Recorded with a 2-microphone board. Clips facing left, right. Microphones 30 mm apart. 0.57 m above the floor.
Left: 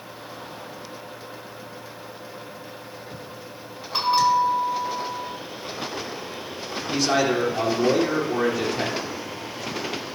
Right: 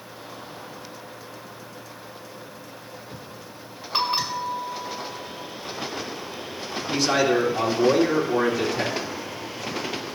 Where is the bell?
10° right (ahead or behind), 2.5 m.